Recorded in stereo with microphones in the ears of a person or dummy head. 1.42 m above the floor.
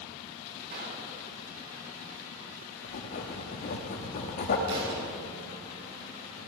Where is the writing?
30° left (ahead or behind), 1.3 m.